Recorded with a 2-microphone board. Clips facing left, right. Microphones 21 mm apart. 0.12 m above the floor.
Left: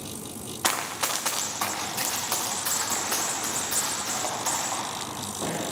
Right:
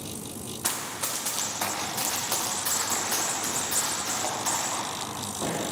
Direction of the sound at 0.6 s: 75° left (ahead or behind).